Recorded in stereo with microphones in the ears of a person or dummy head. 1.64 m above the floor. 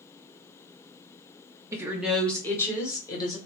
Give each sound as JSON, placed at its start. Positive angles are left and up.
{"t": 1.7, "sound": "a woman speaking", "side_deg": -15, "distance_m": 0.7}